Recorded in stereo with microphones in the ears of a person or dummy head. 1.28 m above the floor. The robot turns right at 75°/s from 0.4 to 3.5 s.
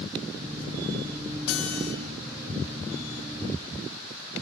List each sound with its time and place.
1.5 s a guitar: 95° left, 5.5 m; by 1.9 s 130° left, 5.5 m